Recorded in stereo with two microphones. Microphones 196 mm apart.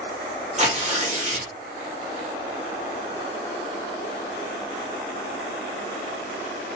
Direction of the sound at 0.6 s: 35° right (ahead or behind).